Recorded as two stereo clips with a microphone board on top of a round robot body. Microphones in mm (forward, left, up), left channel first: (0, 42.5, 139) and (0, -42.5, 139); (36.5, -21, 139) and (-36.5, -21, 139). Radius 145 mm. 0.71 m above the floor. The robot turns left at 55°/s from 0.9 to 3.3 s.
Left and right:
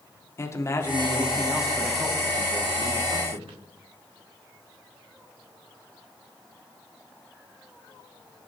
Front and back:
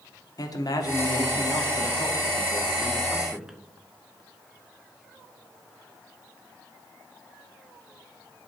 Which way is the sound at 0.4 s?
35° left.